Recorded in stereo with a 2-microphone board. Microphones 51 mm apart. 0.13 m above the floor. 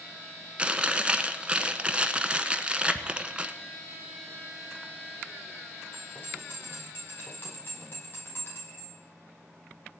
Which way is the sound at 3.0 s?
10° right (ahead or behind).